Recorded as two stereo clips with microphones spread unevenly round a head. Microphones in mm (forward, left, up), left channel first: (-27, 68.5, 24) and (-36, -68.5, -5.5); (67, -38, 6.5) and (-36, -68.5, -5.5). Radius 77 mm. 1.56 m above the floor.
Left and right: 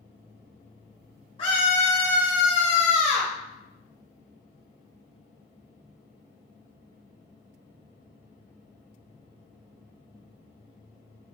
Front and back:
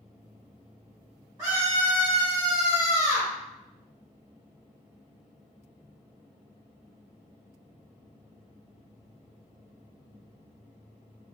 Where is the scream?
130° left, 1.0 m; by 3.3 s 155° right, 1.5 m.